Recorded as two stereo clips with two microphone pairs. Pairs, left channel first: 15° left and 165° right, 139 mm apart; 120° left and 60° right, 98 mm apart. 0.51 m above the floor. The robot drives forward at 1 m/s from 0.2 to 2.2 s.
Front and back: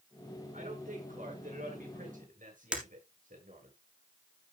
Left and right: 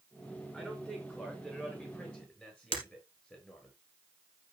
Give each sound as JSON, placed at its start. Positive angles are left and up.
{"t": 0.5, "sound": "a man speaking", "azimuth_deg": -160, "distance_m": 6.5}
{"t": 2.7, "sound": "breaking glass", "azimuth_deg": 110, "distance_m": 3.0}